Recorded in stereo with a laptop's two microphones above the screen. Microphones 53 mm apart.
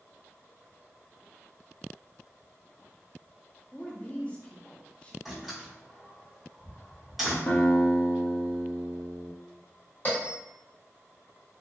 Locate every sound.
3.7 s a woman speaking: 25° left (ahead or behind), 0.7 m
5.2 s a door slam: 5° right (ahead or behind), 0.9 m
7.5 s a guitar: 55° left (ahead or behind), 0.7 m
10.1 s a bell: 35° left (ahead or behind), 1.5 m